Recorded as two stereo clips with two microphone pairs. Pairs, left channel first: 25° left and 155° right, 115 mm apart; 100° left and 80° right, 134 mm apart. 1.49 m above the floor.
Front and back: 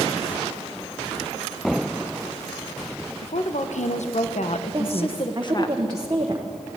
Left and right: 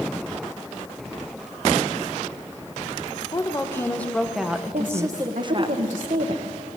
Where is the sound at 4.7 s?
100° right, 1.2 m.